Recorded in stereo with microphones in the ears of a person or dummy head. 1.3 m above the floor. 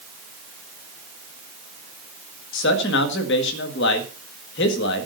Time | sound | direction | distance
2.5 | a man speaking | 60° left (ahead or behind) | 1.7 m